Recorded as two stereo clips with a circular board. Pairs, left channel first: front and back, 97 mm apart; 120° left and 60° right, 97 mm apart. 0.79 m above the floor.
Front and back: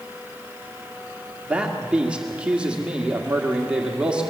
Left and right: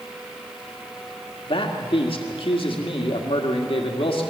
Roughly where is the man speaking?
Left.